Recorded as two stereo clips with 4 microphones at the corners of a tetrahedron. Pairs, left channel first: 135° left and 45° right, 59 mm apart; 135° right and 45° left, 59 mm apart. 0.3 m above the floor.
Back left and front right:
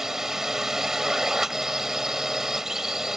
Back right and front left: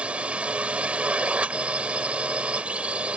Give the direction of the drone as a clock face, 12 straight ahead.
11 o'clock.